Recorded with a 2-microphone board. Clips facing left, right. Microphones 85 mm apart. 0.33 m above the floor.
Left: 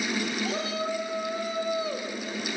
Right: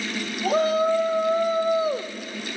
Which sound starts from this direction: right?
A shout, at 0.4 s.